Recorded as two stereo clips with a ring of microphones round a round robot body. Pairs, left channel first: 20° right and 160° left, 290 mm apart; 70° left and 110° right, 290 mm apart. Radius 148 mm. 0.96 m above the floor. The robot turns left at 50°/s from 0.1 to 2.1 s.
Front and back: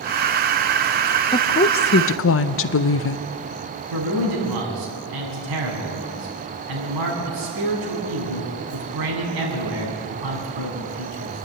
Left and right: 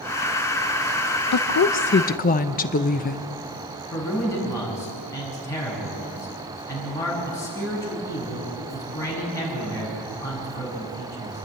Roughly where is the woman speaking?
Ahead left.